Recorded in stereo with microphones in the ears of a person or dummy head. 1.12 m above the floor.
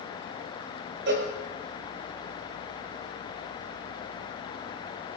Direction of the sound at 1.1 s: 55° right (ahead or behind).